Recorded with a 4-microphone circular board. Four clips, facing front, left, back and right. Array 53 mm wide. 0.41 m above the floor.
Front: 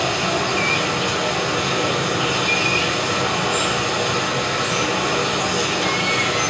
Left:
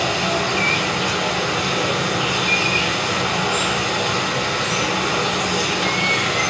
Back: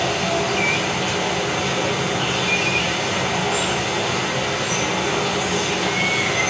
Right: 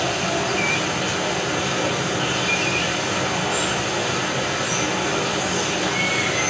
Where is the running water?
55° left, 1.4 m.